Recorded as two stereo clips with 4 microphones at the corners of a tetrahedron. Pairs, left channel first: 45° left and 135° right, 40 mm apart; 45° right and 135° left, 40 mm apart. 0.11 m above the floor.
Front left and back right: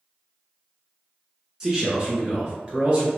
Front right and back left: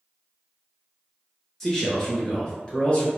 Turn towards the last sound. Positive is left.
turn(degrees=-90)